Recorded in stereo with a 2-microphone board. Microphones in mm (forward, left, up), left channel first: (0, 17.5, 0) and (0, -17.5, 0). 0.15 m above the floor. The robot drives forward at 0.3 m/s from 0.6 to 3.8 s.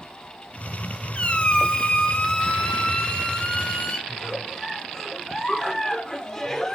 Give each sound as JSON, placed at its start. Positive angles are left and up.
{"t": 1.1, "sound": "a squeak", "side_deg": 40, "distance_m": 0.9}
{"t": 4.1, "sound": "a giggle", "side_deg": 20, "distance_m": 1.1}